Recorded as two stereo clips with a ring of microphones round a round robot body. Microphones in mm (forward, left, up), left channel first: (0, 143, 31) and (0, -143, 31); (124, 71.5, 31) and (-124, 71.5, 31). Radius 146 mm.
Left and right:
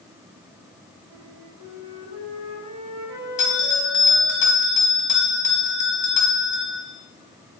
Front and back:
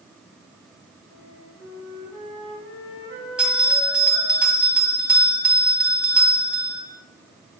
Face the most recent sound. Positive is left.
turn(degrees=95)